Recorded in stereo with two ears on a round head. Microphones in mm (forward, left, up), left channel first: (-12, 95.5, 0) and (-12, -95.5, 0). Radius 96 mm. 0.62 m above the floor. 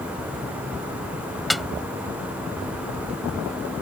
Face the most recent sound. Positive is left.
turn(degrees=0)  # may be behind; listen again after turning